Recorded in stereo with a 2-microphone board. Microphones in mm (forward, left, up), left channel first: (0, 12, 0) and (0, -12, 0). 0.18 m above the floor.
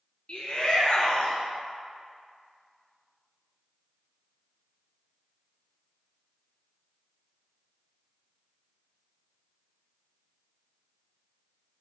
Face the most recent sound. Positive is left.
turn(degrees=50)  # may be behind; listen again after turning